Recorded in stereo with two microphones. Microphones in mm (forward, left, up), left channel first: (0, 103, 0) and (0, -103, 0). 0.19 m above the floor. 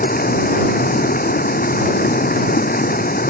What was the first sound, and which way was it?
Running water, 45° left (ahead or behind).